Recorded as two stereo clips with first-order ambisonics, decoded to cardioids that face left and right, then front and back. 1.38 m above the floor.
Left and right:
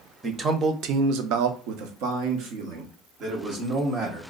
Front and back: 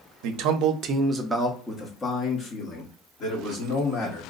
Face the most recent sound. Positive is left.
turn(degrees=-50)